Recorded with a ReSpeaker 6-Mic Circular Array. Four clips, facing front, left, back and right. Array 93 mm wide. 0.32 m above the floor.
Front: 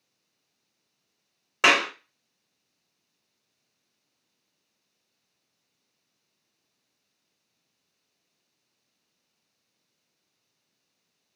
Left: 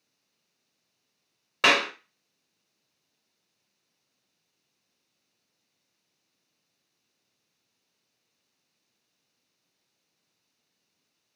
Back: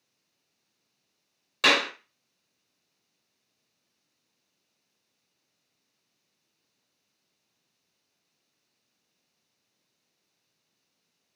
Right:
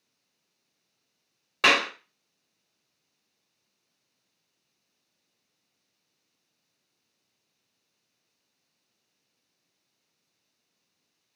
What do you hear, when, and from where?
1.6 s a clap: 10° left, 0.7 m